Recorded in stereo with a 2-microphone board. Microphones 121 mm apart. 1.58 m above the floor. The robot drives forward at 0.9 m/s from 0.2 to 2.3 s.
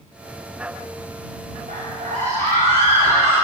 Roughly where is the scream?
Right.